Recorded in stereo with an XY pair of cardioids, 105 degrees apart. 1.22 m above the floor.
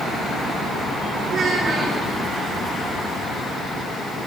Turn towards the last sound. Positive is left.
turn(degrees=-35)